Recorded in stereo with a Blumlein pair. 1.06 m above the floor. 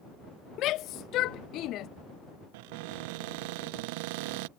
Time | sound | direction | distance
0.6 | a shout | 35° left | ?
2.5 | a cupboard door | 45° right | ?